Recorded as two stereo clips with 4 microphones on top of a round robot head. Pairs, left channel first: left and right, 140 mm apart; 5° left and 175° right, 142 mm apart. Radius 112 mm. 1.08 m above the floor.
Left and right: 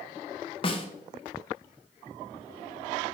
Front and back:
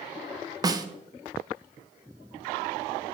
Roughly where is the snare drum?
Behind left.